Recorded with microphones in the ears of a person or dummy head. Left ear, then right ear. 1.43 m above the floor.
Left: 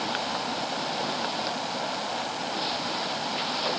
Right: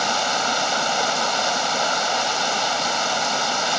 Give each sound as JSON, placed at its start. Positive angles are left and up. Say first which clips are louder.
{"t": 0.0, "sound": "running water", "louder": "right 8 dB", "side_deg": -75}